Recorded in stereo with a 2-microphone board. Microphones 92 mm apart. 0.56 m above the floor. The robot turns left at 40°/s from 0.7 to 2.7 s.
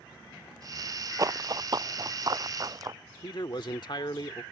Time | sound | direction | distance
1.2 | running footsteps | 40° right (ahead or behind) | ?
3.2 | a man speaking | 55° left (ahead or behind) | ?